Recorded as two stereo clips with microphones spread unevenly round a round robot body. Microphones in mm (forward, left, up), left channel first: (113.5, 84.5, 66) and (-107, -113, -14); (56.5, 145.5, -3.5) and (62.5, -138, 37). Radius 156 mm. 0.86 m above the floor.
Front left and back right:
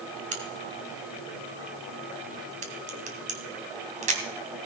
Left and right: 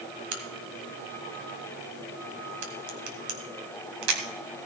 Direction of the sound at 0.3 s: 65° right.